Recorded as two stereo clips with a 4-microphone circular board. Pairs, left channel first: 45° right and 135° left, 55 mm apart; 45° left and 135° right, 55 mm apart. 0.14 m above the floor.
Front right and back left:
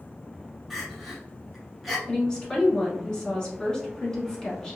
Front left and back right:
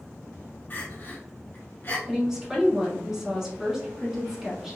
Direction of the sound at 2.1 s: 85° right.